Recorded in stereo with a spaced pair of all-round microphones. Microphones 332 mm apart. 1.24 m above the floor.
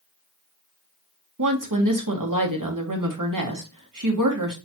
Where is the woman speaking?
70° right (ahead or behind), 1.2 m.